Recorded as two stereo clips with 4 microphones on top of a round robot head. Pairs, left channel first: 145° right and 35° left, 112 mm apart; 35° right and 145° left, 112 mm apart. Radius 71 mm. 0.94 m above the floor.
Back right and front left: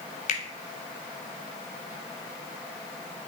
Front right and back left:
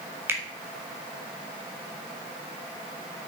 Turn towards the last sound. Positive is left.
turn(degrees=-145)